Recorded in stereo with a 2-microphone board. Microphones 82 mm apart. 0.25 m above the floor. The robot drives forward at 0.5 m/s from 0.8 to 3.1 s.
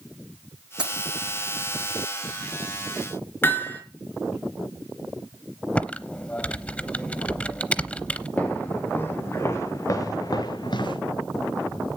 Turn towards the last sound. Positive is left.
turn(degrees=65)  # may be behind; listen again after turning